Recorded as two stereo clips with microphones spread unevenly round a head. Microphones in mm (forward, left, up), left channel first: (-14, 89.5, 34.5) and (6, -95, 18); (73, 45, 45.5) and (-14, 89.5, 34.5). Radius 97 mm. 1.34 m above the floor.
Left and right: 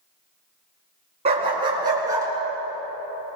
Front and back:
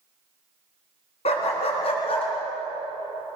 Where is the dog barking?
20° right, 4 m; by 2.3 s 5° right, 4.5 m.